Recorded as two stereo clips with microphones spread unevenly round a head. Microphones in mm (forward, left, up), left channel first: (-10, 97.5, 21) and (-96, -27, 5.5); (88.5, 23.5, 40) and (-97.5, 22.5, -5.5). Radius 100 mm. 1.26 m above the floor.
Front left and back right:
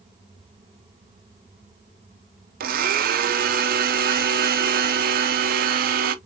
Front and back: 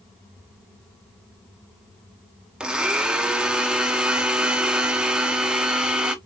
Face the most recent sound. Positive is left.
turn(degrees=-100)